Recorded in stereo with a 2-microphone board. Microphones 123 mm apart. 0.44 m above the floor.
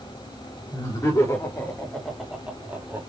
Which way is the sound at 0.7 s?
30° left (ahead or behind).